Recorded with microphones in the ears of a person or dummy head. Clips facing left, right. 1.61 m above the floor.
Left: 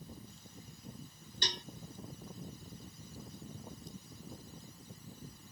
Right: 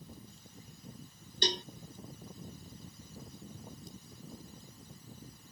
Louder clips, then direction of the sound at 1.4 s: Right 9 dB; 25° right (ahead or behind).